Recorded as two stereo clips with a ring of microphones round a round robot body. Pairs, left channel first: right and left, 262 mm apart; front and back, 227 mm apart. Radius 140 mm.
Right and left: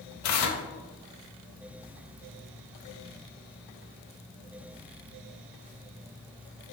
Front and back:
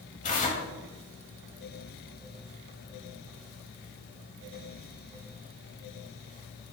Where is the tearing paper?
60° right, 0.6 m.